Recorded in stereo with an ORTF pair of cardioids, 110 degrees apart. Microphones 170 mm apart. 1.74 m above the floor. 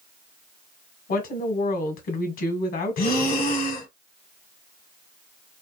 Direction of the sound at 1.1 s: 55° left.